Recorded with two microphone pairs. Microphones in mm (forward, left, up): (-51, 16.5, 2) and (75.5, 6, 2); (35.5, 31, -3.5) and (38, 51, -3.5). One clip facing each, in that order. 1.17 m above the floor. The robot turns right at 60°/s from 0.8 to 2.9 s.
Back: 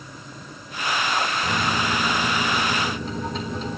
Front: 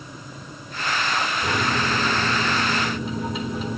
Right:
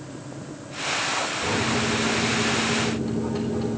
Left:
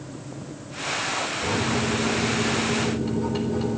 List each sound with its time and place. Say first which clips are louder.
1.4 s a microwave: front 1 dB, even; 10° right, 4.5 m; by 3.8 s 80° left, 4.5 m